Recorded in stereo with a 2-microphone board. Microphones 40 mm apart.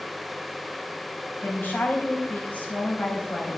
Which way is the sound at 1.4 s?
45° left (ahead or behind).